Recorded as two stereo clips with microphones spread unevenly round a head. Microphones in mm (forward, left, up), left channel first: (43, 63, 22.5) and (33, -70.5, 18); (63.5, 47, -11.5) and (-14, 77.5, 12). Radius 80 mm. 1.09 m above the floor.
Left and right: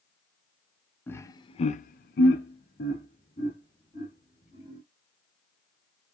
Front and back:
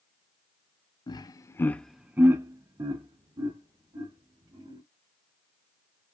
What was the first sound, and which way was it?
Laughter, 10° left.